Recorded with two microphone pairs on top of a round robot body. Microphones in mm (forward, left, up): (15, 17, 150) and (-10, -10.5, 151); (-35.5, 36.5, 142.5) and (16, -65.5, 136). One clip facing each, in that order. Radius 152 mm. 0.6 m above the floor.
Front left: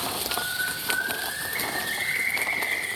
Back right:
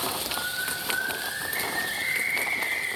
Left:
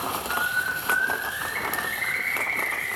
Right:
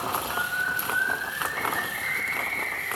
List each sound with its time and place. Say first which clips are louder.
0.3 s a bird: front left 2 dB, left 1 dB; 120° left, 3 m